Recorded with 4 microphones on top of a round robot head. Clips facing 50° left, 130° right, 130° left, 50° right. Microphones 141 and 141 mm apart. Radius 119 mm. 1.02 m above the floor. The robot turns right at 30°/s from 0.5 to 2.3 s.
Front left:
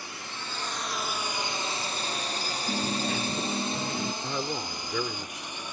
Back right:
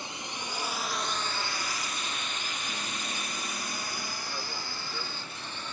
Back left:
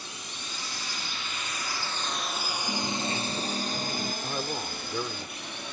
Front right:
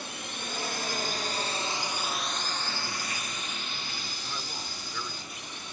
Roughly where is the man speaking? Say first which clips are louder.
Front left 7 dB, back left 7 dB; left.